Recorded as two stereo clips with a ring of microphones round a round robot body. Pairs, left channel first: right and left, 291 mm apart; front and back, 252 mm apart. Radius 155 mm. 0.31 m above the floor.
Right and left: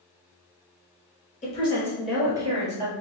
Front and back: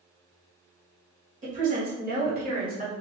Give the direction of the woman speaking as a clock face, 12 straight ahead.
5 o'clock.